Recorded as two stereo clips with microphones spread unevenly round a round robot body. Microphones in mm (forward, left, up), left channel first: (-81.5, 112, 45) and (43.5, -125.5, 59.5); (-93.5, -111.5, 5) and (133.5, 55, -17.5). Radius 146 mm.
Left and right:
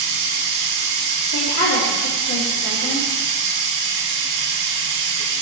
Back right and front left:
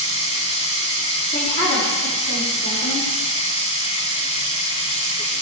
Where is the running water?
75° right, 2.5 m.